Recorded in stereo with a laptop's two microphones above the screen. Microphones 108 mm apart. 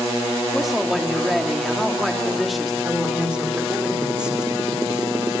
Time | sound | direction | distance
0.5 | a woman speaking | centre (ahead or behind) | 3 m
2.8 | a woman speaking | 10° right (ahead or behind) | 3 m